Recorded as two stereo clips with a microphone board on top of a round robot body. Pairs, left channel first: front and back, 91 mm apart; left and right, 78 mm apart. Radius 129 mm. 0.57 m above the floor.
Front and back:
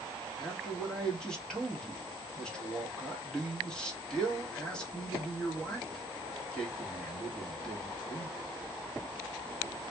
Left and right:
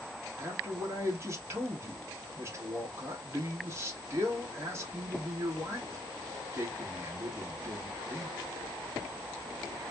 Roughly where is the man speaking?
Right.